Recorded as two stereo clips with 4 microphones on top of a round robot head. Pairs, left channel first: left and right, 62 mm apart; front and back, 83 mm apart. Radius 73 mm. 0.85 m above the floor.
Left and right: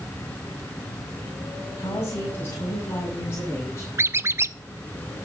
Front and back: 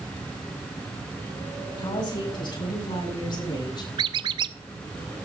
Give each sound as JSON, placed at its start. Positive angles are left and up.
{"t": 1.8, "sound": "a woman speaking", "azimuth_deg": 30, "distance_m": 6.5}
{"t": 4.0, "sound": "a squeak", "azimuth_deg": -140, "distance_m": 0.6}